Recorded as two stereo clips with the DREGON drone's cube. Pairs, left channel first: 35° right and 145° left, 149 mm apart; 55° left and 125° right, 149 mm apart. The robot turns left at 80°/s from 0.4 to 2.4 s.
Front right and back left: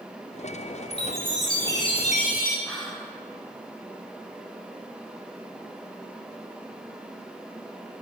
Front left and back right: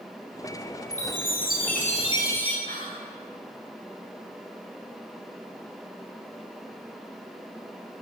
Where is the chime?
95° left, 1.0 m; by 2.6 s 20° right, 1.0 m.